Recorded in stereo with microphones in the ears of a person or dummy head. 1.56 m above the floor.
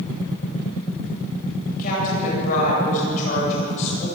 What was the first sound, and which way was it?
A woman speaking, 50° left (ahead or behind).